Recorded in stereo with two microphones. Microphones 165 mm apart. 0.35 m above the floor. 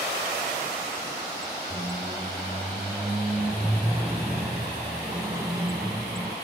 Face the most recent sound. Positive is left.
turn(degrees=-15)  # may be behind; listen again after turning